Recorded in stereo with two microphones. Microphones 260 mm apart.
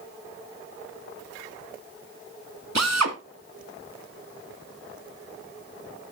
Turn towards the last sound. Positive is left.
turn(degrees=-80)